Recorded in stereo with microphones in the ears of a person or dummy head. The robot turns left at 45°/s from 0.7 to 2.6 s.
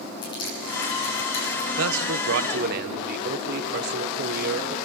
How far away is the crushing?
About 8.5 m.